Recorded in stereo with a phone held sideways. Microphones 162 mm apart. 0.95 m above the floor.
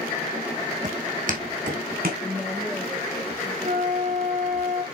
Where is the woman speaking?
5° left (ahead or behind), 2 m.